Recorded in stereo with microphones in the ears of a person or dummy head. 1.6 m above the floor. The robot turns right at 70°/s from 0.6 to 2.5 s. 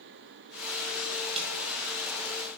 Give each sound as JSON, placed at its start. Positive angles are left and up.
{"t": 1.4, "sound": "a snare drum", "side_deg": -30, "distance_m": 1.3}